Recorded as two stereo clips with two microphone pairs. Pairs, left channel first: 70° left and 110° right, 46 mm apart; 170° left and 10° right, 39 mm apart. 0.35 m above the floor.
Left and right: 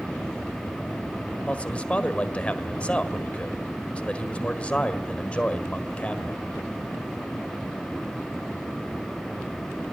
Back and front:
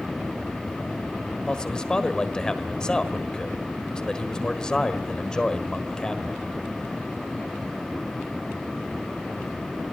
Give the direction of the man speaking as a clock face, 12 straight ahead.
8 o'clock.